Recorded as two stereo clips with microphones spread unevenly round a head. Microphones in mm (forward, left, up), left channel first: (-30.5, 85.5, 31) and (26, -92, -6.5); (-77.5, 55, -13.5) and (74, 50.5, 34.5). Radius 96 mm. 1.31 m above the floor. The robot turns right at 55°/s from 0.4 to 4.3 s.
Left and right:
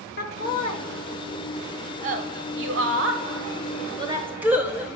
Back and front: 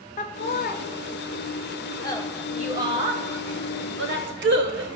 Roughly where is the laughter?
Behind left.